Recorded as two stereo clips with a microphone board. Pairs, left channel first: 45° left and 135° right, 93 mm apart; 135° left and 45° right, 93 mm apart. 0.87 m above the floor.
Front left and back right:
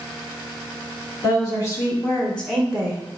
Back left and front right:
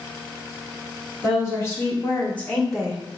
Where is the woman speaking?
85° left, 1.6 m; by 3.0 s 115° right, 0.9 m.